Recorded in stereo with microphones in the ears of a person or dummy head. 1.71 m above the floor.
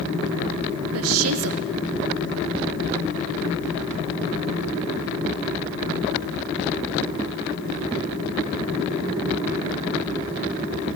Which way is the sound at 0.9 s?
80° right.